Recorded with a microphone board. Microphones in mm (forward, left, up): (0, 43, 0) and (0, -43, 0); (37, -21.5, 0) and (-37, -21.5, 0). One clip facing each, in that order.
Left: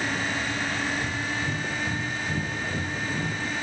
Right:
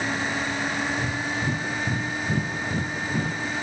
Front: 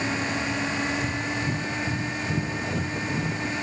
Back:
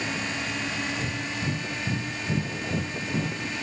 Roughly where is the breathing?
Behind right.